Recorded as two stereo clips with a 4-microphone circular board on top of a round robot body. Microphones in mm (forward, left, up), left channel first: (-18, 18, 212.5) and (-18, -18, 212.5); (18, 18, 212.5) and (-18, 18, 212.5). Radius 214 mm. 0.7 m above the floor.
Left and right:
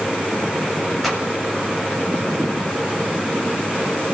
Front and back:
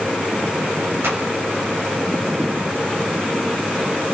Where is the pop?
Straight behind, 5.5 m.